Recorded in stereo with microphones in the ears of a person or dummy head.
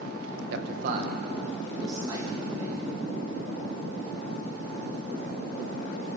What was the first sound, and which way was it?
A man speaking, 60° right (ahead or behind).